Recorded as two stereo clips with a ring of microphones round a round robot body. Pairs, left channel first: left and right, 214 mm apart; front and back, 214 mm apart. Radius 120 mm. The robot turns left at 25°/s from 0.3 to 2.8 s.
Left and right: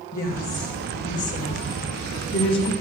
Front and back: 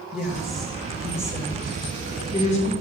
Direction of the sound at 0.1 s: 95° left.